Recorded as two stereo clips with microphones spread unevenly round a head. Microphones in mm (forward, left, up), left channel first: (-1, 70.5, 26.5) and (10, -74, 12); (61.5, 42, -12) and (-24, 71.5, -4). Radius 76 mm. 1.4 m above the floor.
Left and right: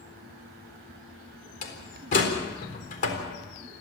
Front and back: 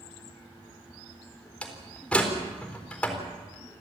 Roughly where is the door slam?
Ahead left.